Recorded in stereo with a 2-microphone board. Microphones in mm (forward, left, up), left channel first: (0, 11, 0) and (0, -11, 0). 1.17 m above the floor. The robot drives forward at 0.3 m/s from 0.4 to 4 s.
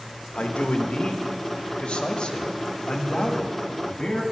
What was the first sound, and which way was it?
A man speaking, 85° left.